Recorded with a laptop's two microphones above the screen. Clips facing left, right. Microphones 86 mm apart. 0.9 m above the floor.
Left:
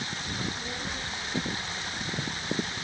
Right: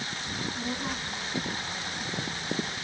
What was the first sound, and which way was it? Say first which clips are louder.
A child speaking: right 4 dB; 80° right.